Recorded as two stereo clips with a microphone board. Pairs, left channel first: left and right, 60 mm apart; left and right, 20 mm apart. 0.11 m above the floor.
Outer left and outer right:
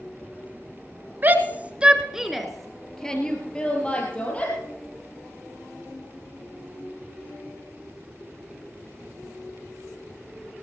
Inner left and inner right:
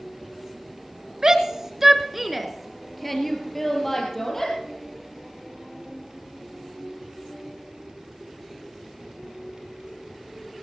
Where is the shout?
35° right (ahead or behind), 1.4 m; by 4.5 s 20° left (ahead or behind), 3.5 m.